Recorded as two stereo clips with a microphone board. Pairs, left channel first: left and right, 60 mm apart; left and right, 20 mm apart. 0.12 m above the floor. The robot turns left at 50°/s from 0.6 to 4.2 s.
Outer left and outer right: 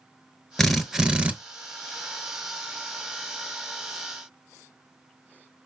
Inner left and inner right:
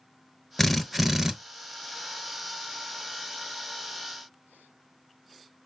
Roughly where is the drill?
Ahead.